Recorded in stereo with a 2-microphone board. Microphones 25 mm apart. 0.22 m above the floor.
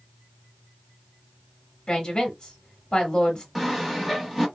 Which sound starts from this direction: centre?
Sawing, at 3.5 s.